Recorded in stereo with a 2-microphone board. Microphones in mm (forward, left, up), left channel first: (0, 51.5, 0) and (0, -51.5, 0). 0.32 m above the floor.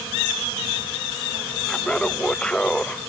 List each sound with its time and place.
1.6 s laughter: 10° left (ahead or behind)